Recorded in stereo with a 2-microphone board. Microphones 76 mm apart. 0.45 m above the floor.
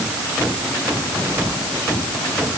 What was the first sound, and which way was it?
Only background noise.